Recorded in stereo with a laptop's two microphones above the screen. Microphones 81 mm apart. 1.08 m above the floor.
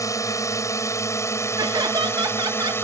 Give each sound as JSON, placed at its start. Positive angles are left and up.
{"t": 0.0, "sound": "a drone", "side_deg": 40}
{"t": 1.6, "sound": "laughter", "side_deg": -60}